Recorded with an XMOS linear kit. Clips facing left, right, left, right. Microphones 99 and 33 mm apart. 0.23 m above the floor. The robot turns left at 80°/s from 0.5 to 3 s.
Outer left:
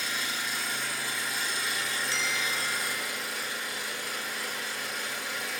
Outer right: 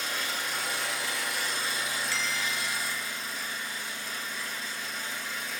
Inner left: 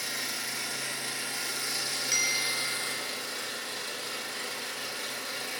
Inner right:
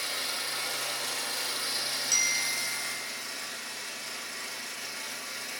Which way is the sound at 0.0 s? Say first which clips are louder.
Outer right 1 dB, inner right 1 dB; 50° right.